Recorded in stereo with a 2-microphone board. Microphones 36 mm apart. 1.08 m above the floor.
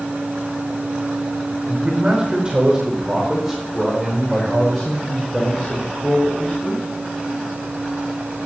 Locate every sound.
1.7 s a man speaking: 35° right (ahead or behind), 4.5 m; by 6.8 s 35° left (ahead or behind), 5.5 m